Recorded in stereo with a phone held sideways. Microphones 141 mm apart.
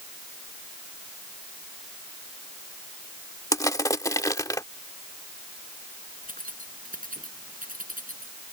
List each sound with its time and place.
3.5 s crushing: 25° left (ahead or behind)
6.2 s keys jangling: 80° right